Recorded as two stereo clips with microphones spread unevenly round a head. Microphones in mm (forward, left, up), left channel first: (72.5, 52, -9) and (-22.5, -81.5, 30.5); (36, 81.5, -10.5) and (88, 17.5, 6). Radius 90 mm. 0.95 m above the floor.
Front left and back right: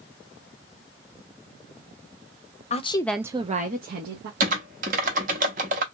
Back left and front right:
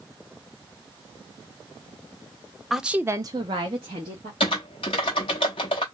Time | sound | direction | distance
2.7 | a woman speaking | 45° left | 0.7 m
4.4 | typing on a keyboard | 170° right | 0.6 m